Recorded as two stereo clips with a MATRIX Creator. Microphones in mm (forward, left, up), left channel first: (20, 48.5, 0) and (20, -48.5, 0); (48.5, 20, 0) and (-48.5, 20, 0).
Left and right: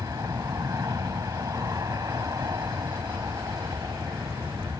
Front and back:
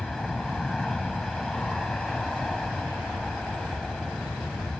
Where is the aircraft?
85° right.